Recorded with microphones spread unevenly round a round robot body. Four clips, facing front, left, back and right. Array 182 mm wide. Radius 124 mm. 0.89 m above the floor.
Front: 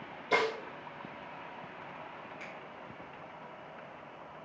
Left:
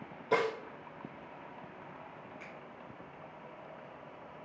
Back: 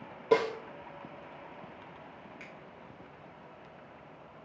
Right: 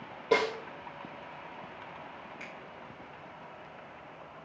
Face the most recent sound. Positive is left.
turn(degrees=-140)